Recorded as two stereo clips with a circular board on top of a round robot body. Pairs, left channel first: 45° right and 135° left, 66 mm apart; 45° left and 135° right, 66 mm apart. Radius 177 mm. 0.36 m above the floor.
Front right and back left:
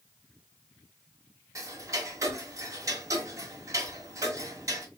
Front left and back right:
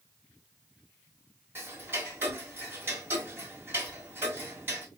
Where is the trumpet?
No trumpet in this recording.